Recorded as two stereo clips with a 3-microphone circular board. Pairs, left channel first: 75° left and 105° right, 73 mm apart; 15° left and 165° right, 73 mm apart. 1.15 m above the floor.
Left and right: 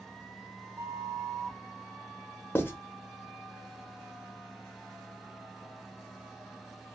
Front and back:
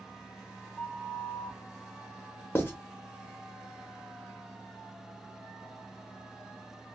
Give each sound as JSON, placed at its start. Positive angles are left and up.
{"t": 0.8, "sound": "a flute", "azimuth_deg": -60, "distance_m": 1.0}
{"t": 2.5, "sound": "writing", "azimuth_deg": 45, "distance_m": 0.8}